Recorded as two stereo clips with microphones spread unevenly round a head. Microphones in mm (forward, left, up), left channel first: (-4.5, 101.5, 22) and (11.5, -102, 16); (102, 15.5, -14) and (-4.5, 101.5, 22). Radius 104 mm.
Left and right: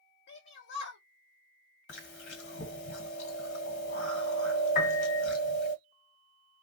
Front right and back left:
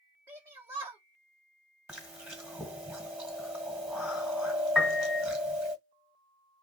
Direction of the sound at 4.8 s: 55° left.